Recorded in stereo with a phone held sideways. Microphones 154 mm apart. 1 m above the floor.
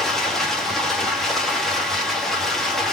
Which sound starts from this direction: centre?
Running water, at 0.0 s.